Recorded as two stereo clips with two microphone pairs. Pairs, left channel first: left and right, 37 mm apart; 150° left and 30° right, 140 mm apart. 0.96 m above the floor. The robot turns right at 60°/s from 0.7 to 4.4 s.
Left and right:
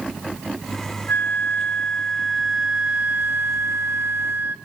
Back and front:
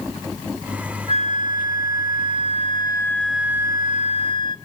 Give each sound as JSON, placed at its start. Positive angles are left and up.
{"t": 1.1, "sound": "a flute", "azimuth_deg": 110, "distance_m": 1.2}